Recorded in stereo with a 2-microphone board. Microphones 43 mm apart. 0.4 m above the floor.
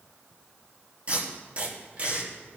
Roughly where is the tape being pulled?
Right.